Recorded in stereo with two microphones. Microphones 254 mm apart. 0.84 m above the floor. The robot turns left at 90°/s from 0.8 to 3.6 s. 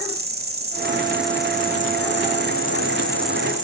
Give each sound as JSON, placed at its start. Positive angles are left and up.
{"t": 0.0, "sound": "an insect", "azimuth_deg": -140, "distance_m": 1.3}